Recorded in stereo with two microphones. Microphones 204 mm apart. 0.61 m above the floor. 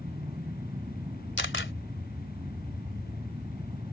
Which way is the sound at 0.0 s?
25° right (ahead or behind).